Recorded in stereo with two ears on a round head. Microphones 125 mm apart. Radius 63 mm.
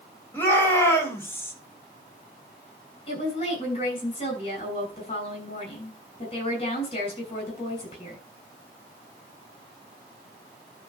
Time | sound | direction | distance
0.3 | a shout | 15° left (ahead or behind) | 3.5 m
3.1 | a woman speaking | 40° left (ahead or behind) | 6.5 m